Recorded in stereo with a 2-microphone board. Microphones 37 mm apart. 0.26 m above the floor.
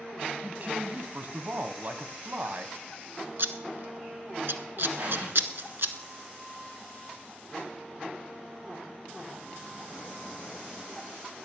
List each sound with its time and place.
0.4 s a man speaking: 50° right (ahead or behind), 1.4 m
3.4 s scissors: 65° right (ahead or behind), 0.8 m
5.0 s an explosion: 60° right (ahead or behind), 9 m